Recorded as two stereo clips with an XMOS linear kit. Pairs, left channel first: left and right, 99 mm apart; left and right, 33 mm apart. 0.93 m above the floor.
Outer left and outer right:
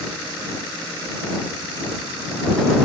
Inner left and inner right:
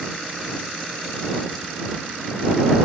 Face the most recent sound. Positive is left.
No sound to turn to.